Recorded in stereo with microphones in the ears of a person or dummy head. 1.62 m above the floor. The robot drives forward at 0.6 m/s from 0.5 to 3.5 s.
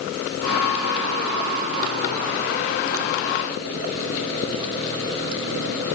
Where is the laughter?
No laughter in this recording.